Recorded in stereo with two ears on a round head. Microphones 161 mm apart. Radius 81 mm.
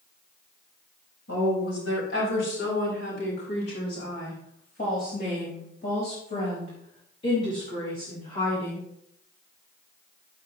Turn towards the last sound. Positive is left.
turn(degrees=20)  # may be behind; listen again after turning